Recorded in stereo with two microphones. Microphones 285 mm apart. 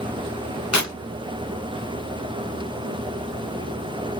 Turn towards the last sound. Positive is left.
turn(degrees=70)  # may be behind; listen again after turning